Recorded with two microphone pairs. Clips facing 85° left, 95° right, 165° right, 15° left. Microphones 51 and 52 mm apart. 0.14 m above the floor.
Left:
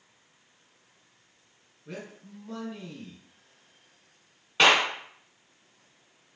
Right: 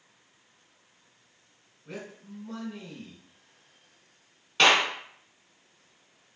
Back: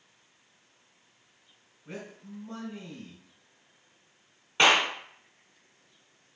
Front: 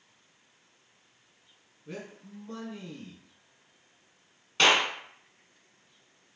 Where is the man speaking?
Straight behind, 1.4 m.